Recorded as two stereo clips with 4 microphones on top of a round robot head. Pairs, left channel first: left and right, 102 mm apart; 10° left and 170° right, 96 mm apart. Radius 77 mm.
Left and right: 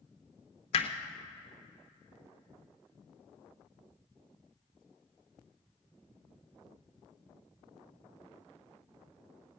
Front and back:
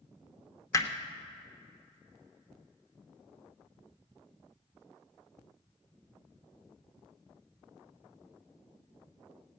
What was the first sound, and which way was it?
Hammering, 65° left.